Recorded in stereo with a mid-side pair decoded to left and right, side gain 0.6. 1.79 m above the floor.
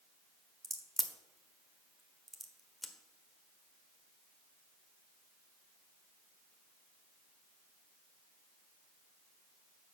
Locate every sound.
0.6 s a crack: 10° right, 1.3 m